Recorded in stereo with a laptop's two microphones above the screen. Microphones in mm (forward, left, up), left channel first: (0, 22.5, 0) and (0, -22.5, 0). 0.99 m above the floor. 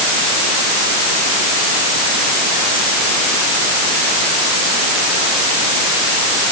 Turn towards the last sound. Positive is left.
No sound to turn to.